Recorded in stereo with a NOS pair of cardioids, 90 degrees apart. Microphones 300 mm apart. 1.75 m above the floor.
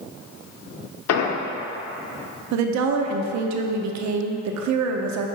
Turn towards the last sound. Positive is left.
turn(degrees=-65)